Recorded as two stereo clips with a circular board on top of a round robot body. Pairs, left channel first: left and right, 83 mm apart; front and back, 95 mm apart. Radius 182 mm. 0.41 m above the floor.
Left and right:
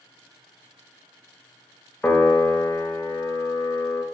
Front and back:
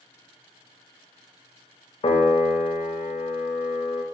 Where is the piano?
20° left, 0.6 m.